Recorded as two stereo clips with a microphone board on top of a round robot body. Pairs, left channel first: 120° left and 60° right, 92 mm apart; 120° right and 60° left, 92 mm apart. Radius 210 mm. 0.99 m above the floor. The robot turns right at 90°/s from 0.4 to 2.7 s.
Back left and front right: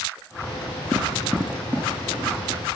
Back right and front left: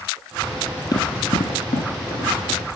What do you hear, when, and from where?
0.9 s running footsteps: 170° right, 1.6 m; by 2.8 s 85° right, 1.6 m